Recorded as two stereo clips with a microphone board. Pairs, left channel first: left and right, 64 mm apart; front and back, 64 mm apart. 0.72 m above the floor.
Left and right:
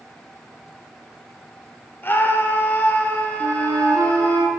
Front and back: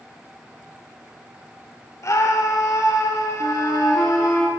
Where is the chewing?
I don't hear chewing.